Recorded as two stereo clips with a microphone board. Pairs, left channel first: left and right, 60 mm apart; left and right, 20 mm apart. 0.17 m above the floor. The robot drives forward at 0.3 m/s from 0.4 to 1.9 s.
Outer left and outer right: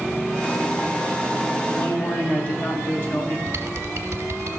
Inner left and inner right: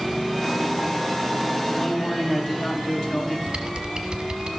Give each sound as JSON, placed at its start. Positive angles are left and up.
{"t": 1.7, "sound": "a man speaking", "side_deg": 30, "distance_m": 2.5}
{"t": 3.5, "sound": "typing on a keyboard", "side_deg": -40, "distance_m": 1.1}